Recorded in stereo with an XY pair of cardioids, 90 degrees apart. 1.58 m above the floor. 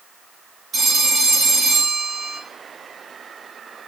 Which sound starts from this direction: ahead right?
A phone ringing, at 0.7 s.